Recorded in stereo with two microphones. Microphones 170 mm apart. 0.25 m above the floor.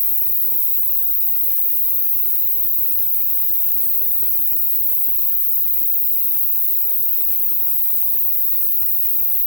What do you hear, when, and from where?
0.0 s an insect: 10° right (ahead or behind), 1.4 m